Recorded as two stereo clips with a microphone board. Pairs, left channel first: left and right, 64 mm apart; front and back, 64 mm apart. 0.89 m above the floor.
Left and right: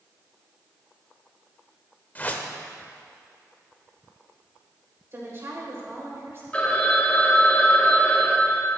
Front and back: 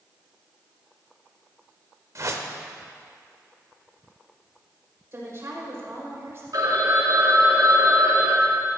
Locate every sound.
2.1 s a whoosh: 150° left, 1.0 m
5.1 s a woman speaking: 135° right, 4.5 m
6.5 s a phone ringing: 160° left, 2 m